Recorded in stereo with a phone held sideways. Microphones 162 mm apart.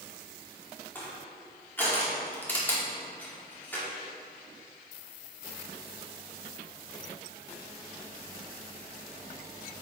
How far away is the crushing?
About 2 m.